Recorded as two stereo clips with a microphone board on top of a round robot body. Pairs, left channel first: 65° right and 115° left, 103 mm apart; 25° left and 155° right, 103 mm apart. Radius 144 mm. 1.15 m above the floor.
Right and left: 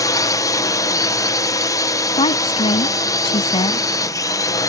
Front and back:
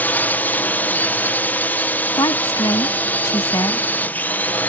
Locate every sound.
0.0 s a drone: 40° right
2.2 s a woman speaking: 35° right